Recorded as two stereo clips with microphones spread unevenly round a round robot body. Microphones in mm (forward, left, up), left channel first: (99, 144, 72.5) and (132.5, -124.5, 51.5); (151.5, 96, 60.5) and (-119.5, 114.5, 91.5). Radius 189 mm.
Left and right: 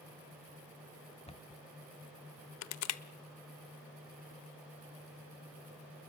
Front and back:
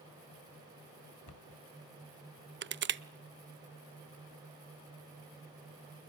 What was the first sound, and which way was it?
A cupboard door, 25° left.